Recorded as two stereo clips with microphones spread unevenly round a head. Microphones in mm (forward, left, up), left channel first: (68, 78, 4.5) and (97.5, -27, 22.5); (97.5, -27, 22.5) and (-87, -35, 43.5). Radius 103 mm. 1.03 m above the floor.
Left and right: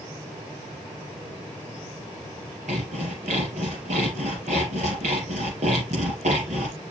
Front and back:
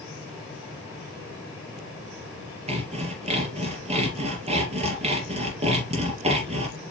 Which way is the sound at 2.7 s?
125° right.